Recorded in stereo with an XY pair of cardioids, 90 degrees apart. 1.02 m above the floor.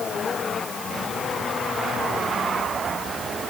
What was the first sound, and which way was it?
Only background noise.